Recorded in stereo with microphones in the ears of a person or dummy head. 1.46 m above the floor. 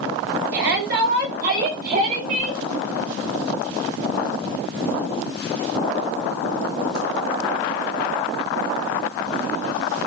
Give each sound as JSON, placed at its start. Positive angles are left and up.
{"t": 0.5, "sound": "a shout", "side_deg": -60, "distance_m": 8.5}